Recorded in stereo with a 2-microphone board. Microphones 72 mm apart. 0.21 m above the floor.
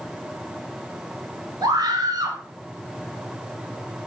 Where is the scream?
70° right (ahead or behind), 3 m.